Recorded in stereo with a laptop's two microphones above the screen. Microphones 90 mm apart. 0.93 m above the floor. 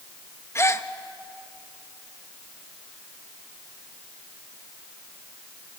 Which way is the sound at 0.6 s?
30° left (ahead or behind).